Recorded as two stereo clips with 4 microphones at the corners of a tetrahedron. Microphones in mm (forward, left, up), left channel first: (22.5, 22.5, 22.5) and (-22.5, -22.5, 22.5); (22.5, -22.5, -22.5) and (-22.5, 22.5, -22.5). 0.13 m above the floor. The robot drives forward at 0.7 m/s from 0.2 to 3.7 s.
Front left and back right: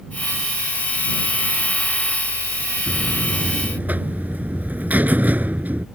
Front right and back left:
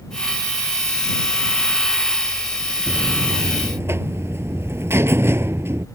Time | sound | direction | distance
2.9 | a buzzer | 165° left | ?